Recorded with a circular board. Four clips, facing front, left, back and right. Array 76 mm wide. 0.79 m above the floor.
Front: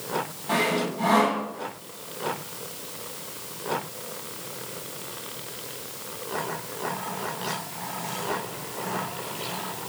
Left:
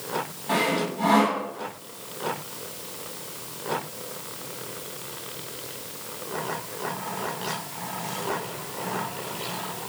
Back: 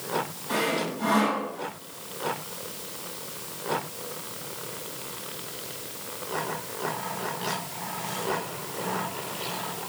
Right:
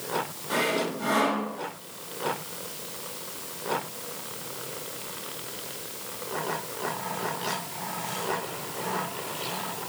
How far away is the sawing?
About 5.5 m.